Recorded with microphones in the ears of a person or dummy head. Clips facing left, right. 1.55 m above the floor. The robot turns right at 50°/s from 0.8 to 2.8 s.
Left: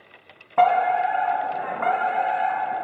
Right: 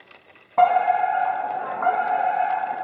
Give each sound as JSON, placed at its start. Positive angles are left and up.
{"t": 0.6, "sound": "a fire alarm", "azimuth_deg": 10, "distance_m": 1.1}